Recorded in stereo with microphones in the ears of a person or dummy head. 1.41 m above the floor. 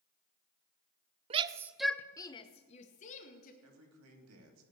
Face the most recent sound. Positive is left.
turn(degrees=-85)